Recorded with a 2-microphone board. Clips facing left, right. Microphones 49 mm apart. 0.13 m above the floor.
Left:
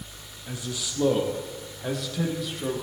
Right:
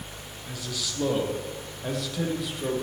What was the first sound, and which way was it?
A man speaking, 20° left (ahead or behind).